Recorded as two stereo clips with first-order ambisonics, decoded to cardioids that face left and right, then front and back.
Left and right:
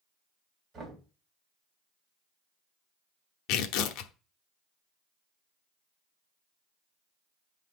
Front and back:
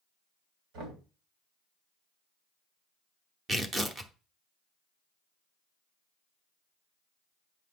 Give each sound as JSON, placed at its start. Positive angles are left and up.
{"t": 0.7, "sound": "knocking", "azimuth_deg": -160, "distance_m": 3.0}
{"t": 3.5, "sound": "tearing paper", "azimuth_deg": 105, "distance_m": 0.9}